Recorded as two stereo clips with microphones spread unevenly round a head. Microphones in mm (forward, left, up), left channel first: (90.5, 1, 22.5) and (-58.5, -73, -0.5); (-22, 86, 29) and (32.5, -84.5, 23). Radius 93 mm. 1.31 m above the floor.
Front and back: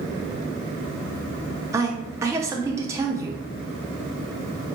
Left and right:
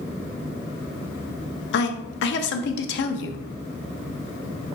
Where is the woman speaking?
135° left, 0.5 m.